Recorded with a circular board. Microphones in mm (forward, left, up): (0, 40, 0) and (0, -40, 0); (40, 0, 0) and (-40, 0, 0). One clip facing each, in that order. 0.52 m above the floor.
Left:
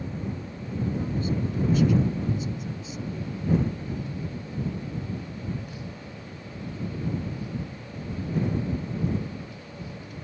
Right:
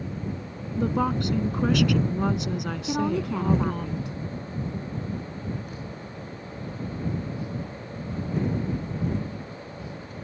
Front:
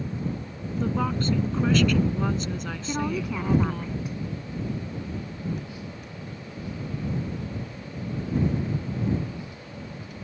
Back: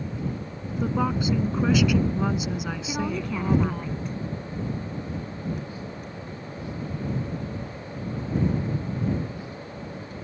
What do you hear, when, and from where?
0.8 s a woman speaking: 100° right
2.9 s a woman speaking: 85° right